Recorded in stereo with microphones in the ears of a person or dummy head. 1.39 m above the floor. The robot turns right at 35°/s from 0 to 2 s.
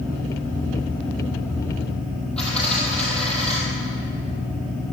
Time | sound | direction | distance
2.4 | a dropped coin | 5° left (ahead or behind) | 3 m